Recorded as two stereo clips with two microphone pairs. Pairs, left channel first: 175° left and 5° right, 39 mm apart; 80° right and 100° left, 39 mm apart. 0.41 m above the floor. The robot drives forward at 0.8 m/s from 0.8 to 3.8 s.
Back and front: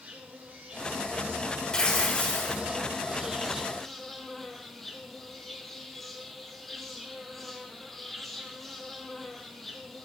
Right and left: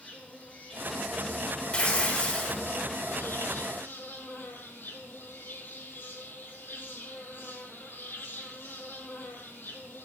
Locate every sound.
0.0 s an insect: 30° right, 2.5 m; by 10.1 s 105° right, 1.4 m
1.7 s tearing paper: 130° right, 2 m; by 2.6 s 145° right, 2.5 m